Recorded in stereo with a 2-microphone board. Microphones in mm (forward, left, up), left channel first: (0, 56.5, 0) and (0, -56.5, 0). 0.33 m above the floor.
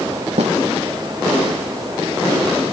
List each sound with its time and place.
0.4 s a snare drum: 80° right